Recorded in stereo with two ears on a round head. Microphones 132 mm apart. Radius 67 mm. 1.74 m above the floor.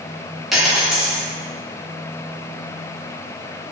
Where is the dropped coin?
Centre (ahead or behind), 1.2 m.